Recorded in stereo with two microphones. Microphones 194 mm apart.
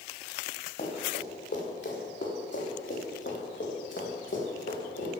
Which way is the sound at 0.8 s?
55° left (ahead or behind).